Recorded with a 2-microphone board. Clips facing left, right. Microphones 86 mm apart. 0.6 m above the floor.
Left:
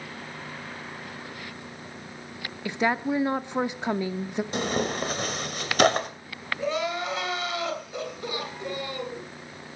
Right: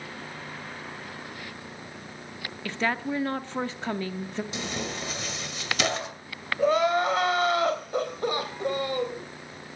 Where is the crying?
50° right (ahead or behind), 3 m.